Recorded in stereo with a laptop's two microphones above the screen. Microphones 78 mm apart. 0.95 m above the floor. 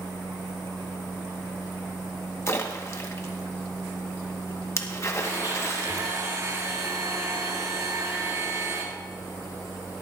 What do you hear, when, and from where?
2.5 s a splash: 40° left (ahead or behind), 1.1 m
5.2 s a blender: 45° right (ahead or behind), 2.5 m